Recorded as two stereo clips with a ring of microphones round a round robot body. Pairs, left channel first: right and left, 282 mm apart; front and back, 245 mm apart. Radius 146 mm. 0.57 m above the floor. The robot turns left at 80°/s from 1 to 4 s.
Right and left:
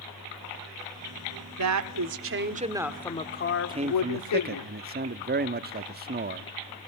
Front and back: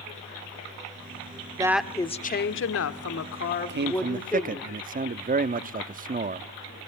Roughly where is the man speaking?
Behind.